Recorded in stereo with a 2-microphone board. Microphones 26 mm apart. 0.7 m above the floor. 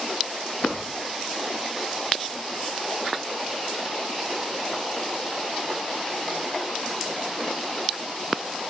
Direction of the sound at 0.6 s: 80° left.